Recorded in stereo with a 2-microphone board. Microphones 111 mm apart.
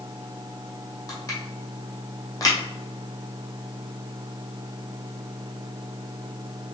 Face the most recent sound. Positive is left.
turn(degrees=30)  # may be behind; listen again after turning